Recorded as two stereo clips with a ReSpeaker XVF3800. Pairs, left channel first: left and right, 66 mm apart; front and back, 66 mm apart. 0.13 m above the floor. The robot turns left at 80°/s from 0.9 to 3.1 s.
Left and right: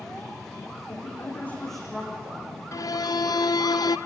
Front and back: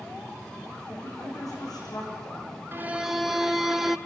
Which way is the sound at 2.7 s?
130° left.